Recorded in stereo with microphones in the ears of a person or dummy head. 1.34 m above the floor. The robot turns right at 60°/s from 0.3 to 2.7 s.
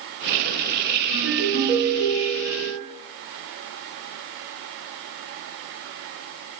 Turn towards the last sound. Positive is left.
turn(degrees=-75)